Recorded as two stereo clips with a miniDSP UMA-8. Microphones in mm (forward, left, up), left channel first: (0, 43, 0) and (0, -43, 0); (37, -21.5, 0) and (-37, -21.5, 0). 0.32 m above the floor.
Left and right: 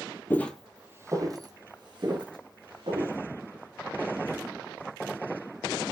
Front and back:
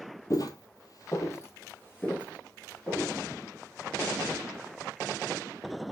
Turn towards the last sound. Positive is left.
turn(degrees=-70)